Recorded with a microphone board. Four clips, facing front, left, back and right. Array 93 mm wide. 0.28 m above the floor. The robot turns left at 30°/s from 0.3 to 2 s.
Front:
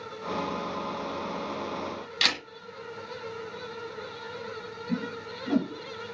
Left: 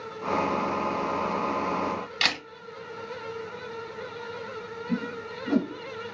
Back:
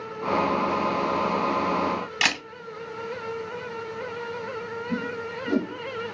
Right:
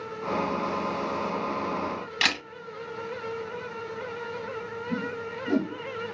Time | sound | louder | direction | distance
2.2 | a camera shutter | right 3 dB, back 1 dB | 165° right | 1.4 m
4.9 | a whoosh | left 1 dB, back 1 dB | 50° left | 1.6 m